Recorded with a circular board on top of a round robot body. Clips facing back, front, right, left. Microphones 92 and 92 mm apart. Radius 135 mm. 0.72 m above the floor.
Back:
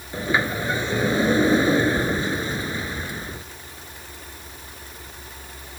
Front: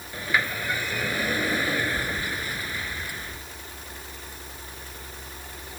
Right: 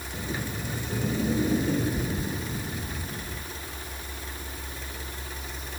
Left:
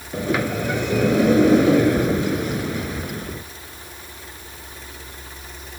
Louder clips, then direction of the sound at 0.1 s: Back 4 dB, left 12 dB; 110° left.